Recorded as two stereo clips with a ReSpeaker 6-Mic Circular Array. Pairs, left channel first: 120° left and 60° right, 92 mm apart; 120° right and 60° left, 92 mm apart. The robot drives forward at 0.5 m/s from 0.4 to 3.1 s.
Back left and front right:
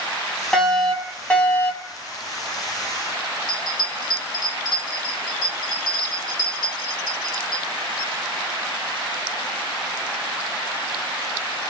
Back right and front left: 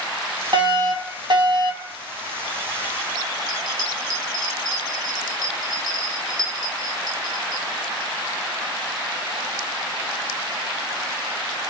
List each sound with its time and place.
0.5 s a fire alarm: 35° left, 1.8 m; by 1.9 s 60° left, 1.4 m
3.5 s a bell: 160° left, 1.9 m